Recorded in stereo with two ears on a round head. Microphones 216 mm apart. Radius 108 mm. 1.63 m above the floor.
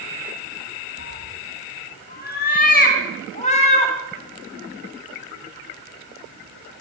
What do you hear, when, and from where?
1.0 s a cat meowing: 50° left (ahead or behind), 4.5 m; by 4.0 s 25° left (ahead or behind), 3.5 m